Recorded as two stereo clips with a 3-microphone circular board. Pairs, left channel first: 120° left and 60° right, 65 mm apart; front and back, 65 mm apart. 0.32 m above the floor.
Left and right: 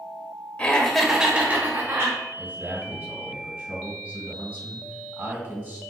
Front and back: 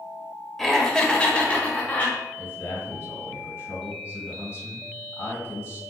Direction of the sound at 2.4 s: 30° right.